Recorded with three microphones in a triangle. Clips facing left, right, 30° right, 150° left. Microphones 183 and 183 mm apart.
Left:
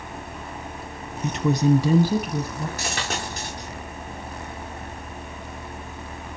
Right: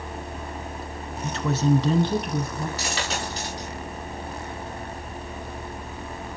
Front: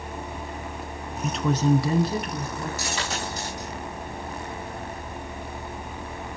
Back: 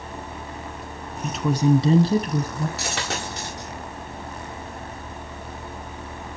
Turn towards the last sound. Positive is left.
turn(degrees=130)